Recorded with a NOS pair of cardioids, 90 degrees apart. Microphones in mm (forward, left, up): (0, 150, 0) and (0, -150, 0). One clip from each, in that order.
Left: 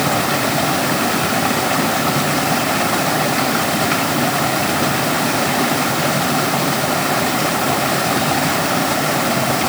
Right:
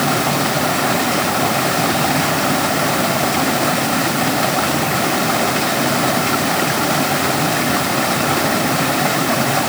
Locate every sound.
Only background noise.